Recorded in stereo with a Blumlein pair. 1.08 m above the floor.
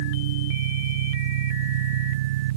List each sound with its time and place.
0.0 s an engine running: 55° right